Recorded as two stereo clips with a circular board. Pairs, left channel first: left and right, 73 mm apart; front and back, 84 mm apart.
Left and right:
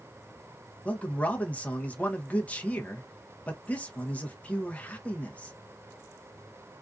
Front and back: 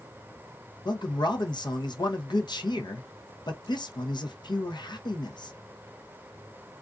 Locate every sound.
0.8 s a man speaking: 20° left, 0.6 m